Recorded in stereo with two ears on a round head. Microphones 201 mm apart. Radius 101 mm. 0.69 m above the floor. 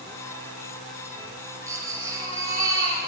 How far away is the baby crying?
About 4.5 m.